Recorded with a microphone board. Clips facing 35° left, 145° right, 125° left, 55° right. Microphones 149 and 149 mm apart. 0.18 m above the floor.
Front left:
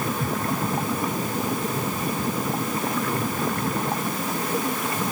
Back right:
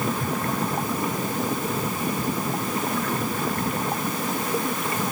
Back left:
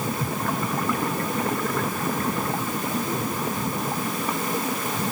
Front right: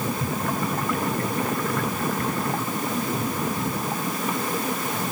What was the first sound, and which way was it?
Only background noise.